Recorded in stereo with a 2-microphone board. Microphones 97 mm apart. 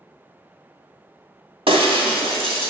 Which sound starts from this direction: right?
Breaking glass, at 1.7 s.